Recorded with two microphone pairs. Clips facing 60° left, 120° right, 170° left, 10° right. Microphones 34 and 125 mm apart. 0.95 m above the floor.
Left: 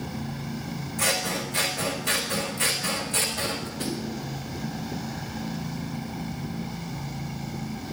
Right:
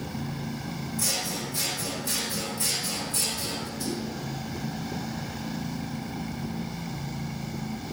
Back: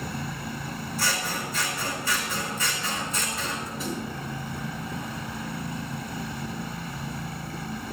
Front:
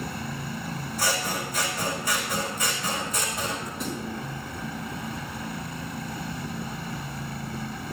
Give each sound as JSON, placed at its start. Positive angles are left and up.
{"t": 1.0, "sound": "scissors", "azimuth_deg": 65, "distance_m": 4.0}
{"t": 3.8, "sound": "a snare drum", "azimuth_deg": 80, "distance_m": 5.5}